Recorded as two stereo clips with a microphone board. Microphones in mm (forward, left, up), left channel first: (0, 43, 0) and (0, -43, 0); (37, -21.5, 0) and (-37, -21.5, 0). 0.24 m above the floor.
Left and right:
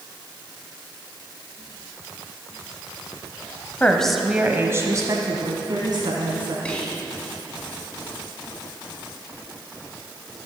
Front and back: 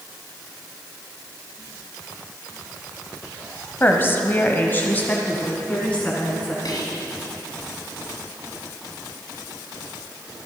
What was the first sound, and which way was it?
A woman speaking, 35° left.